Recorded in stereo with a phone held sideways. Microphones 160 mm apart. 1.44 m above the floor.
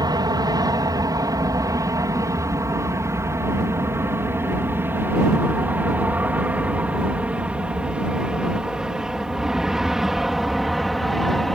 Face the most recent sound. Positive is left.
turn(degrees=0)  # may be behind; listen again after turning